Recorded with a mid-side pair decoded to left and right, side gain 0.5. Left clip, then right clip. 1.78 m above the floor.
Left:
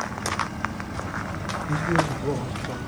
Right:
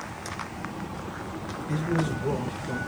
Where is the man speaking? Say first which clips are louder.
Left 5 dB; 30° left, 1.6 m; by 2.8 s 10° left, 1.2 m.